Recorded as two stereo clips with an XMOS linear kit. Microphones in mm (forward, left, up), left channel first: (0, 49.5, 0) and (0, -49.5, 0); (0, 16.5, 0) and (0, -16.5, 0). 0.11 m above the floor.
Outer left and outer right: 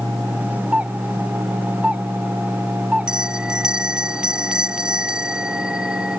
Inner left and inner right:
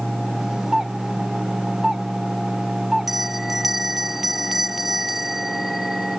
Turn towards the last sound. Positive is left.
turn(degrees=-10)  # may be behind; listen again after turning